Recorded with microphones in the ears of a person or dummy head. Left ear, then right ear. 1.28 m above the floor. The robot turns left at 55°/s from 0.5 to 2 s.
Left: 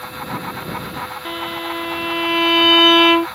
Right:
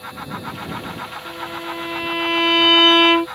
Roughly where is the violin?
Ahead left.